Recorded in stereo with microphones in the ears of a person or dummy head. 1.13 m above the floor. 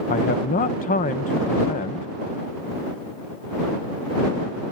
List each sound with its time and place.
0.1 s a man speaking: 35° left (ahead or behind)